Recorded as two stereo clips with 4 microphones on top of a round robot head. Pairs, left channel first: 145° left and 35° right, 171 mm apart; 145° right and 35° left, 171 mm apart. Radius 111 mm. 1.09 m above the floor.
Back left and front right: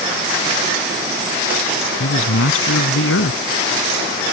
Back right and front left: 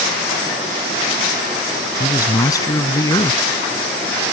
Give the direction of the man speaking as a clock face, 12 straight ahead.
7 o'clock.